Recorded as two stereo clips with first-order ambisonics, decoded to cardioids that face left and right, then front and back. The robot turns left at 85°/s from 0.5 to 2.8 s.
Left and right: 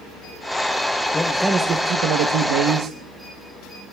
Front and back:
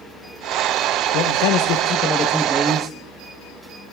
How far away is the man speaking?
About 0.9 m.